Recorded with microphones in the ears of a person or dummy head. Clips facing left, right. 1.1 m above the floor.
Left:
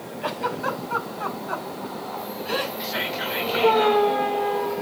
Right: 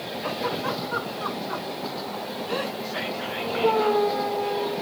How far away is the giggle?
About 5.5 m.